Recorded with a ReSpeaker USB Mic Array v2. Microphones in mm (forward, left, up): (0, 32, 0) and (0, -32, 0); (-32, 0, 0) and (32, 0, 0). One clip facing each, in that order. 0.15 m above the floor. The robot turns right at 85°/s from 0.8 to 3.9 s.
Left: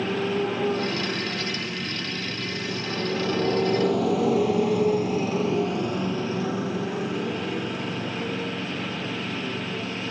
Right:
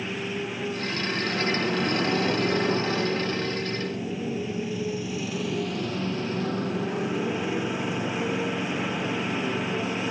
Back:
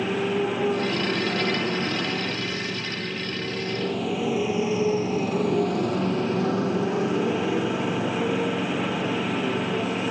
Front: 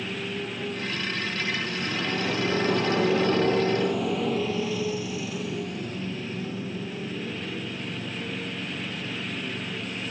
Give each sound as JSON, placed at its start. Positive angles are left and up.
{"t": 0.0, "sound": "a motorcycle", "azimuth_deg": 140}